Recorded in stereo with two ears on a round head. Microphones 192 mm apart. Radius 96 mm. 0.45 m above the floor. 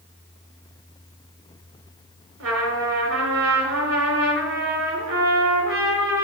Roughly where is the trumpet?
Right.